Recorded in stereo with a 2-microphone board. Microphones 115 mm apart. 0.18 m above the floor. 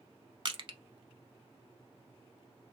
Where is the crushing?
45° right (ahead or behind), 0.6 m.